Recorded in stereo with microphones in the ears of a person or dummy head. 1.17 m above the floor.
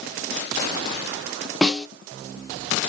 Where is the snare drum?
5° right (ahead or behind), 0.5 m.